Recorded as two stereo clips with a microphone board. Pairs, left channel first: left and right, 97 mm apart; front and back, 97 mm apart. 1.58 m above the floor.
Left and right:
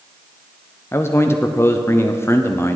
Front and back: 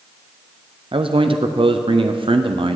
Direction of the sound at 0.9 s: 155° left.